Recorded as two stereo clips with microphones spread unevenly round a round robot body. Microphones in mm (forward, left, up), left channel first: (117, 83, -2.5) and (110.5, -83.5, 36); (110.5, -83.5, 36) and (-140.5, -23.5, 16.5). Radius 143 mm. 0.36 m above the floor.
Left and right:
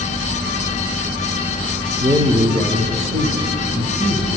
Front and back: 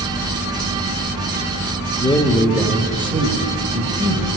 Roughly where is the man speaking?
Ahead right.